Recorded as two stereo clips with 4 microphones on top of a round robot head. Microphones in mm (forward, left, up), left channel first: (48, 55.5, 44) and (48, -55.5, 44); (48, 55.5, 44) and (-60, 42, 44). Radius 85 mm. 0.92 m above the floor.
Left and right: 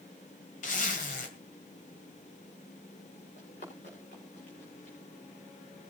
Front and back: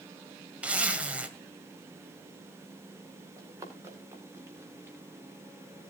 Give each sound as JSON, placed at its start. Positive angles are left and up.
{"t": 0.6, "sound": "a zipper", "azimuth_deg": 110, "distance_m": 2.5}
{"t": 3.4, "sound": "running footsteps", "azimuth_deg": 125, "distance_m": 7.0}